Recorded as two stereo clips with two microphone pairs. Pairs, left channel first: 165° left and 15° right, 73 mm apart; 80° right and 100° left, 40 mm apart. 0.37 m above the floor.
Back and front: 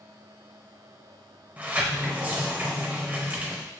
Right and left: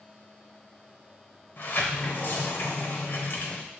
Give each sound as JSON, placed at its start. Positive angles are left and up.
{"t": 1.6, "sound": "a sliding door", "azimuth_deg": -75, "distance_m": 0.7}